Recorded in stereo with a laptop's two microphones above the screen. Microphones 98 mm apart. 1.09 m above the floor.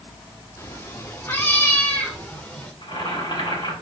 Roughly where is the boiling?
Left.